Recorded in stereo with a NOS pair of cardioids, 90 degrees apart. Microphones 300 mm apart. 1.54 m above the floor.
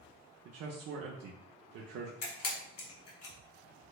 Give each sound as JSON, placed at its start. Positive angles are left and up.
{"t": 0.5, "sound": "a man speaking", "azimuth_deg": -60, "distance_m": 0.6}
{"t": 2.2, "sound": "a camera shutter", "azimuth_deg": 60, "distance_m": 1.4}